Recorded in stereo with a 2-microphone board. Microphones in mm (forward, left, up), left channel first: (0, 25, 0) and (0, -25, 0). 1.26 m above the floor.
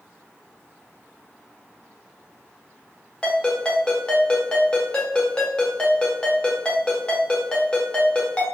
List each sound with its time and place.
3.2 s a ringtone: 20° left (ahead or behind), 0.8 m